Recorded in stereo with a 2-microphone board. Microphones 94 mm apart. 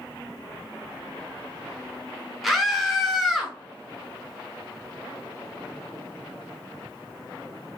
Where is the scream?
Centre (ahead or behind), 0.8 m.